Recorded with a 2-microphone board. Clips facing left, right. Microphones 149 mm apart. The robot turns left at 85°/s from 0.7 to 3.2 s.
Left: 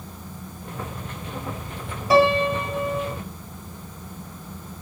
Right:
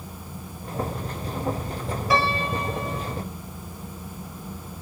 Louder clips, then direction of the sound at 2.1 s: Left 8 dB; 135° left.